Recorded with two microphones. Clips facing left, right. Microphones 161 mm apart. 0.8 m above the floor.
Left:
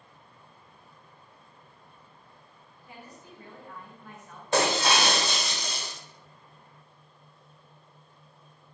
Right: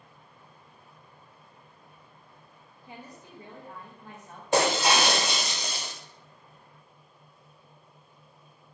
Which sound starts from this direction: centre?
Breaking glass, at 4.5 s.